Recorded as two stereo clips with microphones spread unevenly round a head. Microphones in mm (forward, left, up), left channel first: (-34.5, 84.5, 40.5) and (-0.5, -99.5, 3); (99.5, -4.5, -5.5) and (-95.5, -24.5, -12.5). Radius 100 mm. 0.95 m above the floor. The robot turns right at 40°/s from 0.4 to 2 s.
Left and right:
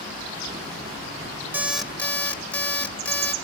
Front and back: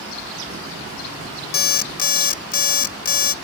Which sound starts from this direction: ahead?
An alarm clock, at 1.5 s.